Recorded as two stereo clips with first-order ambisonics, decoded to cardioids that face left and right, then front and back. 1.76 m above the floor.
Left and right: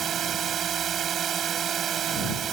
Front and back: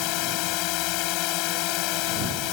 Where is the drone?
25° right.